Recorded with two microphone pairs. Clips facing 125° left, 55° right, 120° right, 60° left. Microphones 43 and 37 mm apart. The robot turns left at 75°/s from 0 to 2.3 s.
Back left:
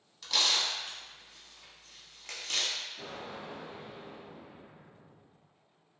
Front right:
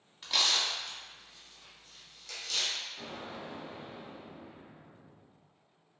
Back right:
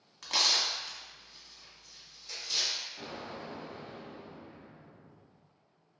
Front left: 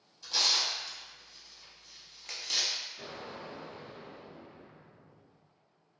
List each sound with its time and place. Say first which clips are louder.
0.2 s tearing paper: even, back right 1 dB; 120° right, 0.8 m; by 2.8 s 80° left, 0.8 m
3.0 s an explosion: even, back right 1 dB; 120° right, 1.9 m